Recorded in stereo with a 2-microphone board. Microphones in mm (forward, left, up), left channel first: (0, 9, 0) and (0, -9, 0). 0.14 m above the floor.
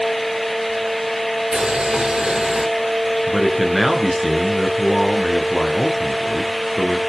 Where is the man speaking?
5° right (ahead or behind), 2 m.